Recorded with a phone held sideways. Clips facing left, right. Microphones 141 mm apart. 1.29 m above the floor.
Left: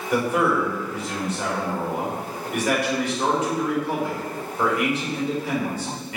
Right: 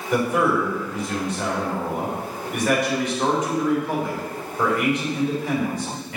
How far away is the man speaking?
About 4 m.